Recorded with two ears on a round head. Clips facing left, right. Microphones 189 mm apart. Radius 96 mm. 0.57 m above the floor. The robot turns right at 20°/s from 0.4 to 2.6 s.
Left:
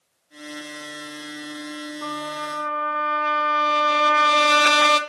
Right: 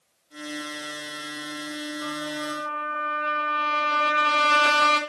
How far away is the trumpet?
About 2 m.